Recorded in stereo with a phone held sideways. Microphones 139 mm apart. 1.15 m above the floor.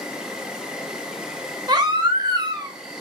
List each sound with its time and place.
0.0 s an insect: 5° right (ahead or behind), 0.7 m
1.7 s a baby crying: 30° right (ahead or behind), 0.8 m